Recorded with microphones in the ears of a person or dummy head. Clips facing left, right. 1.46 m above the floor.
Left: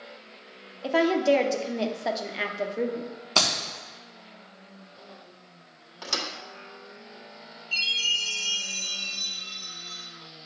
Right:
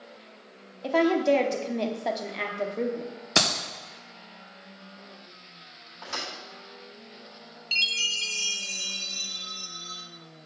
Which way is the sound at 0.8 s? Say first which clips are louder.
Even; 5° left (ahead or behind).